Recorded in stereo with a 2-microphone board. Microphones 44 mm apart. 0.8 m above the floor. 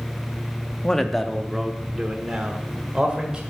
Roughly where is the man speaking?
Centre.